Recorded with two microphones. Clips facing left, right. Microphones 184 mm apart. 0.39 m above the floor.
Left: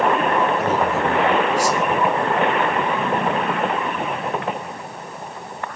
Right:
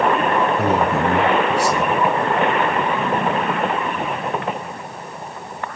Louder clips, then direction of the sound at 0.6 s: Right 2 dB; 70° right (ahead or behind).